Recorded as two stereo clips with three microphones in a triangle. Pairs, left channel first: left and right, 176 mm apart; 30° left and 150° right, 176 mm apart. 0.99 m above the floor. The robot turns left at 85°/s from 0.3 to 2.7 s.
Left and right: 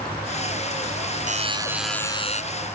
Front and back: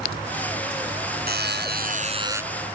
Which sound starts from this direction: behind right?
A buzzer, at 1.3 s.